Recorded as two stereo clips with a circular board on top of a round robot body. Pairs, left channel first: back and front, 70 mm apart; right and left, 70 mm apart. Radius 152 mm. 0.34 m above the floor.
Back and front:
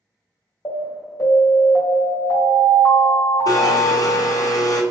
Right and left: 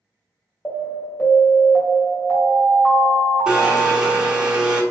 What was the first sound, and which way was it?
An alarm, 150° right.